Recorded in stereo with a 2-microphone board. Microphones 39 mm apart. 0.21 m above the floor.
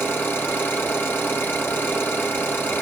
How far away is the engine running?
About 4.5 m.